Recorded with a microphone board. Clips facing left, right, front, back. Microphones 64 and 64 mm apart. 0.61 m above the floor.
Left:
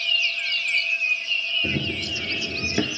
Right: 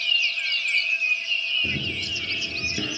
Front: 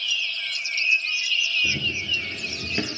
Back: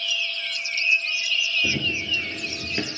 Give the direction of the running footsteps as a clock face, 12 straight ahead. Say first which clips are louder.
Left 2 dB, back 1 dB; 7 o'clock.